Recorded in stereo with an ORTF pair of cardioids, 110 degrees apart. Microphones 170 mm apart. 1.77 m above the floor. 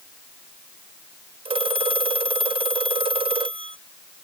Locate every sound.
1.4 s a phone ringing: 35° right